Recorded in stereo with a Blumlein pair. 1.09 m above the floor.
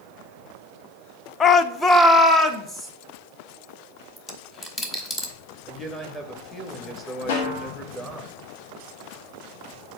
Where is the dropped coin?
15° left, 1.2 m.